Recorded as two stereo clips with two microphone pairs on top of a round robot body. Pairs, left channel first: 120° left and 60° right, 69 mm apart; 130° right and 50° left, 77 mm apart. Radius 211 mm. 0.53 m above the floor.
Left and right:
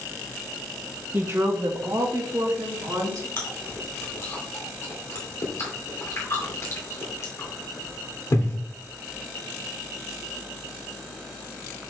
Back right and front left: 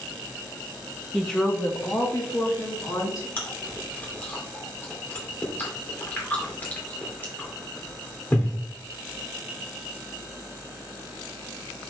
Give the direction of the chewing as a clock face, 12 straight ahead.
6 o'clock.